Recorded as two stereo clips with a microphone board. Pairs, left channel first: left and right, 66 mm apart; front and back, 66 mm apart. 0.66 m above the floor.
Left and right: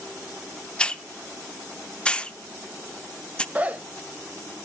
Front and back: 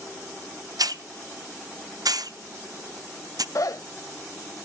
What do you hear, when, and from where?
0.8 s a hiss: 165° left, 0.5 m
3.5 s a zipper: 25° right, 0.7 m